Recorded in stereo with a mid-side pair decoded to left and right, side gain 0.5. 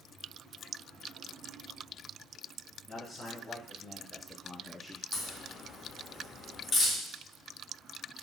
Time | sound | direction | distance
2.9 | a man speaking | 40° left | 1.5 m
5.1 | a crack | 55° left | 1.7 m